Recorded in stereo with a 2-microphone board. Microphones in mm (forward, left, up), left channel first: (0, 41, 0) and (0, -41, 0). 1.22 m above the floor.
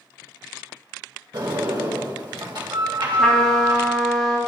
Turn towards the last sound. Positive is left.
turn(degrees=0)  # may be behind; listen again after turning